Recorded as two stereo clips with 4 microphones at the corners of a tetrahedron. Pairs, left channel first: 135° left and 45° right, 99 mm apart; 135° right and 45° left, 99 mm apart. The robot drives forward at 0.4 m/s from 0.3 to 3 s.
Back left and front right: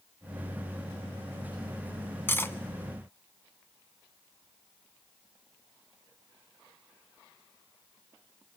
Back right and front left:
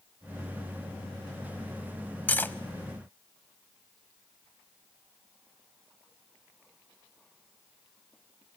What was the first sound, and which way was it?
Cutlery clinking, 170° left.